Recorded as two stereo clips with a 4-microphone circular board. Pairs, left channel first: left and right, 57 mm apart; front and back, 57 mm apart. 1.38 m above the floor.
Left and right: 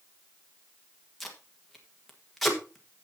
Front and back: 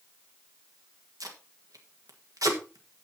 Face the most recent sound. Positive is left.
turn(degrees=180)